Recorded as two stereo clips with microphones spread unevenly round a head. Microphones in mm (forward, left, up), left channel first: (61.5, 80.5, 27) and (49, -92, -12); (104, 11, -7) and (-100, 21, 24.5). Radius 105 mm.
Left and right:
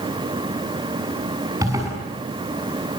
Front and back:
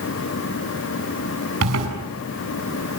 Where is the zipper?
170° right, 7 m.